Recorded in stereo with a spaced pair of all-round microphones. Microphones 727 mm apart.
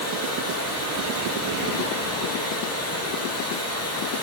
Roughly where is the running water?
Centre.